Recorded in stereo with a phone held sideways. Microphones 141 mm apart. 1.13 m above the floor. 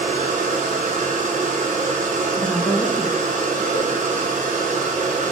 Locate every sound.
0.0 s a machine running: 65° right (ahead or behind), 0.7 m
2.4 s a woman speaking: 10° left (ahead or behind), 0.7 m
3.7 s a whoosh: 50° left (ahead or behind), 1.0 m